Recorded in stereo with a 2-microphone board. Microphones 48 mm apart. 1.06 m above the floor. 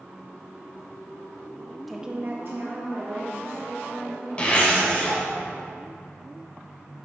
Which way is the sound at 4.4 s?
25° left (ahead or behind).